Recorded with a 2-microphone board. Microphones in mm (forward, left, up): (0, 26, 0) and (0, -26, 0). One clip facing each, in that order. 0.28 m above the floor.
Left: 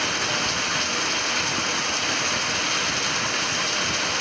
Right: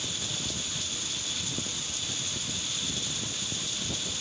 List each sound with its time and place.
0.0 s running water: 65° left (ahead or behind)